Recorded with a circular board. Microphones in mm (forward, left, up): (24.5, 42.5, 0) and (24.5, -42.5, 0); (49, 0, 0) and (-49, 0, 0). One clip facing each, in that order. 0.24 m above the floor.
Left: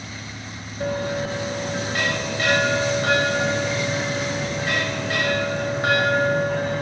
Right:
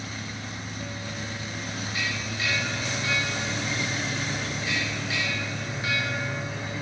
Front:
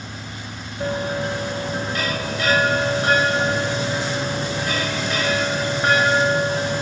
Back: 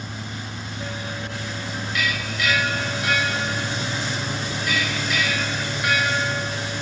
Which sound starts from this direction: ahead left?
A bell, at 0.8 s.